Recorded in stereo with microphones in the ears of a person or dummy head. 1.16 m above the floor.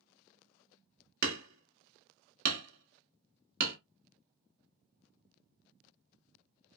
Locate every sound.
1.2 s hammering: 60° right (ahead or behind), 1.3 m